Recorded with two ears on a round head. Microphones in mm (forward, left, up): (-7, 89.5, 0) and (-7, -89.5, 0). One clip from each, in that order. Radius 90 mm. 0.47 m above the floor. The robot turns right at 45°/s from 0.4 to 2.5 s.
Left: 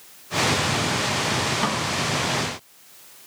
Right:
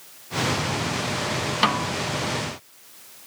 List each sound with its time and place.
1.6 s a snare drum: 65° right (ahead or behind); by 1.9 s 80° right